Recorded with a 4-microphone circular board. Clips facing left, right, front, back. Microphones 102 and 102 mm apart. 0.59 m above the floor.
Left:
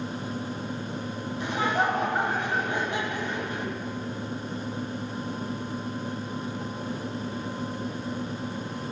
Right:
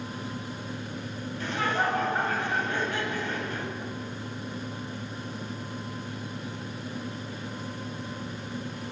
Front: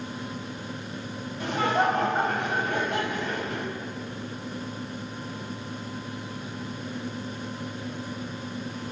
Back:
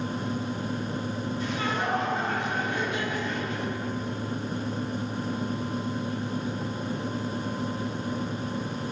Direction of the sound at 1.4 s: 20° left.